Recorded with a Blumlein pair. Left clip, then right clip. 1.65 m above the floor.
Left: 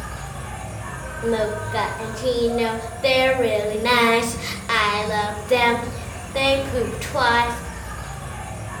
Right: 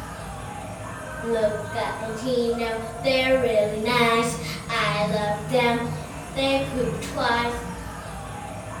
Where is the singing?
30° left, 0.6 m.